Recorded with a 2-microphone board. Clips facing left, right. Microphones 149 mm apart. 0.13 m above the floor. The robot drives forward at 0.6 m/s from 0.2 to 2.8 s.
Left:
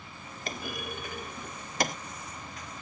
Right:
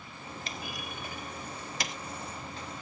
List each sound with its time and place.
0.5 s a clunk: 55° left (ahead or behind); by 2.0 s 50° left (ahead or behind)